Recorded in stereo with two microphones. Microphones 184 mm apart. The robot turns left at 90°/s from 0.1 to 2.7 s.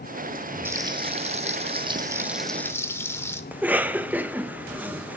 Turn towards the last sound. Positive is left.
turn(degrees=-10)  # may be behind; listen again after turning